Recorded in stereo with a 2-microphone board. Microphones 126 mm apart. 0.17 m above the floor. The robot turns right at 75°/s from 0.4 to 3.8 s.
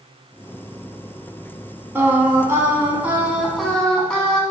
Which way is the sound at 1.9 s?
20° right (ahead or behind).